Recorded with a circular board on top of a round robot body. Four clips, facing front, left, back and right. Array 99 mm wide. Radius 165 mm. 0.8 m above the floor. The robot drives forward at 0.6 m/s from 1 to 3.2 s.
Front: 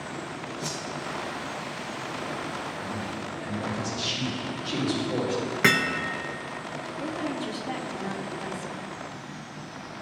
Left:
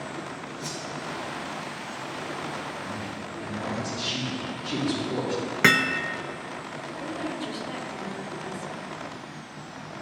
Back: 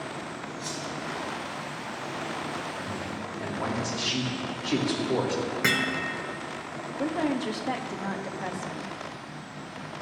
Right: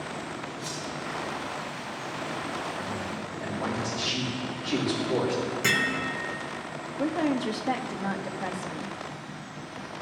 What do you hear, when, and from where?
0.6 s a whoosh: 30° left, 2 m
2.8 s a man speaking: 175° right, 3.5 m
5.6 s hammering: 70° left, 0.8 m
7.0 s a woman speaking: 130° right, 1.0 m